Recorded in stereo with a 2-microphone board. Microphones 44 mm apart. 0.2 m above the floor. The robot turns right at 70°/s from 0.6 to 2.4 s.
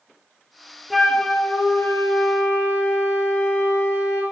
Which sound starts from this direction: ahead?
A flute, at 0.9 s.